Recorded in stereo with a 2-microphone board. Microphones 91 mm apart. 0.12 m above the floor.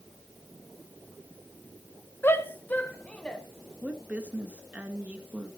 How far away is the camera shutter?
No camera shutter in this recording.